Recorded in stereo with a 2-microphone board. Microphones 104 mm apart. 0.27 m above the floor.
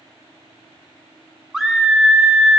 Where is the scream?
5° right (ahead or behind), 2.5 m.